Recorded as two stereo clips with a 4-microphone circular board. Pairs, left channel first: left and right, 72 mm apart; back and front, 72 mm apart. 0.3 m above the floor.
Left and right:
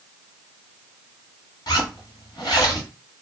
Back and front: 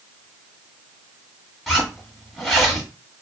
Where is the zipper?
90° left, 1.4 m.